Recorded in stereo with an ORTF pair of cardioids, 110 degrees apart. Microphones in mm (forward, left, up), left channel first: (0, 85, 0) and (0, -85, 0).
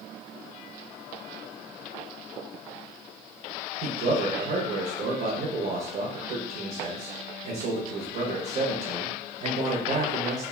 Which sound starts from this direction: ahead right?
A man speaking, at 3.8 s.